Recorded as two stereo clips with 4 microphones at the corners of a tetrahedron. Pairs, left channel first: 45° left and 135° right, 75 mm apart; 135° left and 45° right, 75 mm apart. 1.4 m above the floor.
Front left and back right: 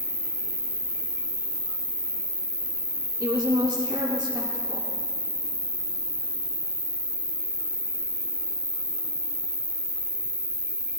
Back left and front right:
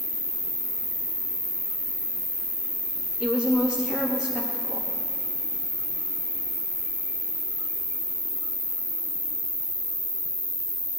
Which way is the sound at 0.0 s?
165° left.